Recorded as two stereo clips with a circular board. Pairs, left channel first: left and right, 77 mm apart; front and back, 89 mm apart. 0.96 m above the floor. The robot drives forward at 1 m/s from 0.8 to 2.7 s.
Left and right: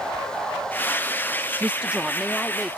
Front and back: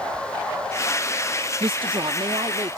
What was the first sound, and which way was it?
A woman speaking, 165° right.